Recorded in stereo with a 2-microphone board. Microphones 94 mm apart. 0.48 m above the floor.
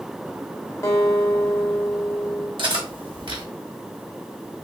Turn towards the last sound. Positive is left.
turn(degrees=-60)  # may be behind; listen again after turning